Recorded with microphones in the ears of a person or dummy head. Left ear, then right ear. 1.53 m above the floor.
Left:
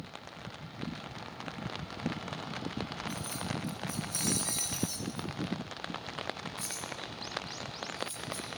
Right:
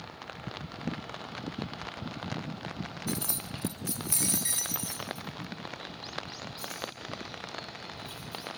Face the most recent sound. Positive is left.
turn(degrees=5)  # may be behind; listen again after turning